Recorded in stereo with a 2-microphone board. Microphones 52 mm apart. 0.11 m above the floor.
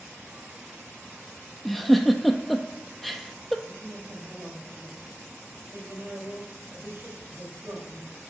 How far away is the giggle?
About 0.6 m.